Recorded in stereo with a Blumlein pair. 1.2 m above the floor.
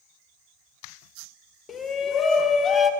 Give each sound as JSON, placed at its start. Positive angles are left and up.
{"t": 1.7, "sound": "a shout", "azimuth_deg": 20, "distance_m": 0.6}